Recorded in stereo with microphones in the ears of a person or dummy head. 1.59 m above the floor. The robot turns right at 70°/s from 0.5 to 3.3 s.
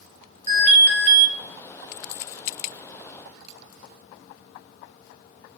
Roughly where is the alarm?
Behind right.